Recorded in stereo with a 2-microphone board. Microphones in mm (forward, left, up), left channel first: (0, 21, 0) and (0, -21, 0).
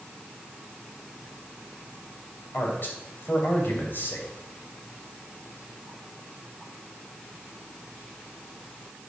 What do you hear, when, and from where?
2.5 s a man speaking: 55° left (ahead or behind), 2.5 m